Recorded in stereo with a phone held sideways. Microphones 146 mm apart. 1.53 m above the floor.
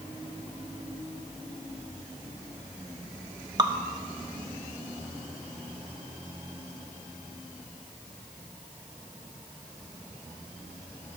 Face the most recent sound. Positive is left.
turn(degrees=-30)  # may be behind; listen again after turning